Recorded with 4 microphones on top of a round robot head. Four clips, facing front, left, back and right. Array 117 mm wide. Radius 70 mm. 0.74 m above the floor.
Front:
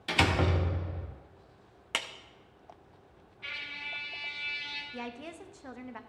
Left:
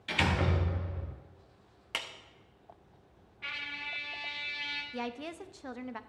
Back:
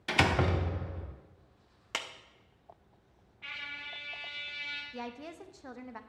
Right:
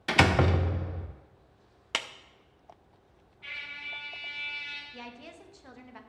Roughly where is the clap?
Right.